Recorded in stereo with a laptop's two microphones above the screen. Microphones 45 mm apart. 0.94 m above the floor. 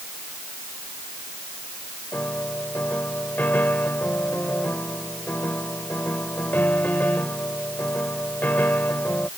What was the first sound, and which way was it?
A piano, 40° left (ahead or behind).